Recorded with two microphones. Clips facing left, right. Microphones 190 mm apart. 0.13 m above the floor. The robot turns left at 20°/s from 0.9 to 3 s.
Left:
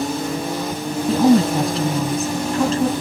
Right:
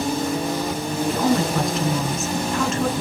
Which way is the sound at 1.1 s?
115° left.